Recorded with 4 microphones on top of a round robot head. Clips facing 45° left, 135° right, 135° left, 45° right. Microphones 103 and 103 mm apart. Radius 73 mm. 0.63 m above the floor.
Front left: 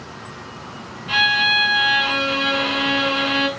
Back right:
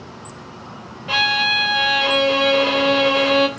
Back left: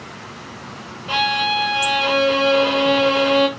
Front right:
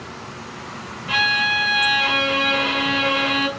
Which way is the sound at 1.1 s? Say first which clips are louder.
Even, back left 3 dB; 175° right.